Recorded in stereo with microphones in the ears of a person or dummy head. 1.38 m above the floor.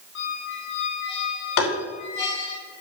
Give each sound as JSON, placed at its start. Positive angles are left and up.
{"t": 0.1, "sound": "a squeak", "side_deg": 70, "distance_m": 3.5}
{"t": 1.6, "sound": "tapping", "side_deg": 70, "distance_m": 3.0}